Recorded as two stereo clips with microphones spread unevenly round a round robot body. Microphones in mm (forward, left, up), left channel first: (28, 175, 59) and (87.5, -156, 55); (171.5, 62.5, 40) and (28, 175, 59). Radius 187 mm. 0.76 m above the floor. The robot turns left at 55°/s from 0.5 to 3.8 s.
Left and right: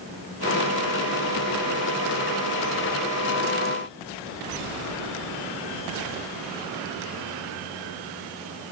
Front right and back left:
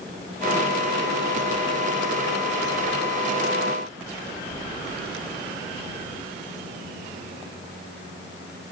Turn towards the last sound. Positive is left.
No sound to turn to.